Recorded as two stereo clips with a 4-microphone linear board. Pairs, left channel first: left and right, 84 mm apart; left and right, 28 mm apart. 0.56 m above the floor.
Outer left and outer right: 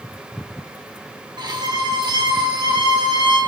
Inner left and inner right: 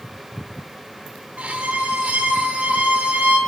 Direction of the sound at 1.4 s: 65° right (ahead or behind).